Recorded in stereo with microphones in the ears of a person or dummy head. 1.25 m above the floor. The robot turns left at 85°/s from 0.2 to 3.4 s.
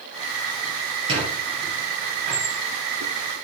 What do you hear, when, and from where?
1.1 s a squeak: 30° right (ahead or behind), 4.5 m; by 2.5 s 25° right (ahead or behind), 4.5 m